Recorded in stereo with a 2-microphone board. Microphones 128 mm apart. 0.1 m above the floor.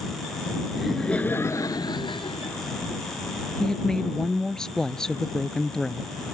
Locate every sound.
0.8 s laughter: 5° right (ahead or behind); by 2.6 s 50° left (ahead or behind)
3.6 s a woman speaking: 5° left (ahead or behind)